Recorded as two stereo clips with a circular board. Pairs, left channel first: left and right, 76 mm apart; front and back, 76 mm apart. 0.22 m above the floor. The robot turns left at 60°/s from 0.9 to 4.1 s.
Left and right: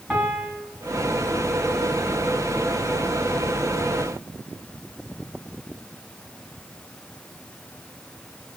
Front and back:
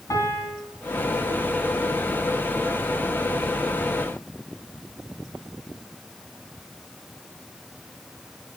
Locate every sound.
0.1 s a piano: 10° right, 2 m